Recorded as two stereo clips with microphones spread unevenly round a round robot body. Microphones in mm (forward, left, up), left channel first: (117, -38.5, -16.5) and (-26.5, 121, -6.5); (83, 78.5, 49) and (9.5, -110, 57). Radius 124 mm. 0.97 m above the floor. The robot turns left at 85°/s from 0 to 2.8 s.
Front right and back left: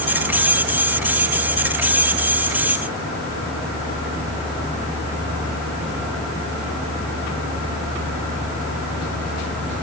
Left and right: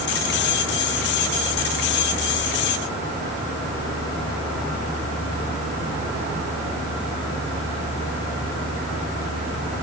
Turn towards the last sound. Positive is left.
No sound to turn to.